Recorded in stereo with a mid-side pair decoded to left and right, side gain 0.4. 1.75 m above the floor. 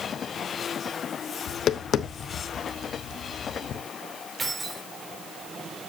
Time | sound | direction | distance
1.5 | tapping | 65° left | 1.2 m
4.4 | keys jangling | 25° right | 4 m